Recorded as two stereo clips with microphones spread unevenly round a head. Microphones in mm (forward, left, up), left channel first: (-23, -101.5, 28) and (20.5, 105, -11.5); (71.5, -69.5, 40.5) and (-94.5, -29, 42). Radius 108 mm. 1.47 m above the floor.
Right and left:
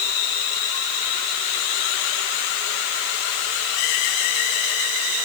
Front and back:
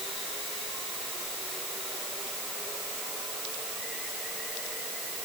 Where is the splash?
I don't hear a splash.